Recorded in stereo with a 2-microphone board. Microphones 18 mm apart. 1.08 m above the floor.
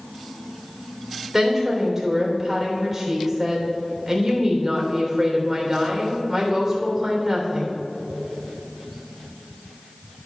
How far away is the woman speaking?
About 3.5 m.